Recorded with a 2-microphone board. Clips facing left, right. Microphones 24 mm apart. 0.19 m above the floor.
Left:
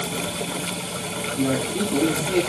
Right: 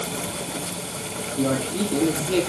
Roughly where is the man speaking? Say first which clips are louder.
Even; right.